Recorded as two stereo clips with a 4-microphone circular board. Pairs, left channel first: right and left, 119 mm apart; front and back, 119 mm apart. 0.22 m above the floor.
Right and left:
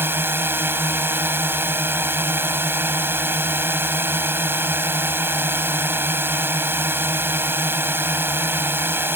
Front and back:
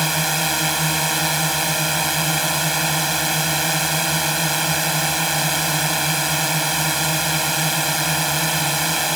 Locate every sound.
0.0 s a drone: 95° left